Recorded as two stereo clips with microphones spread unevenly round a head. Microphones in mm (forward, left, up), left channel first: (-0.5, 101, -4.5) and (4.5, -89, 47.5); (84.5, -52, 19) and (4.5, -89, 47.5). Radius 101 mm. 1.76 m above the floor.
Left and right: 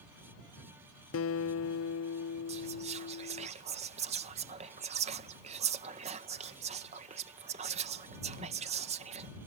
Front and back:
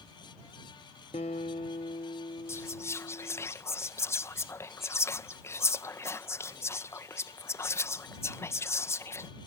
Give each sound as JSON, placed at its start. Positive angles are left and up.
{"t": 1.1, "sound": "a guitar", "azimuth_deg": 75}
{"t": 2.5, "sound": "whispering", "azimuth_deg": -40}